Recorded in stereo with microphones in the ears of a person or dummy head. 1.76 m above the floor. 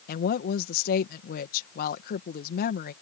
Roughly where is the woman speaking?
Left.